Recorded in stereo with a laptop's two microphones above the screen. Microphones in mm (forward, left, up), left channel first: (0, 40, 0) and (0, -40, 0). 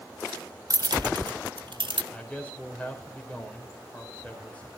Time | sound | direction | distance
0.7 | keys jangling | 45° right (ahead or behind) | 0.7 m
2.1 | a man speaking | 15° left (ahead or behind) | 4.5 m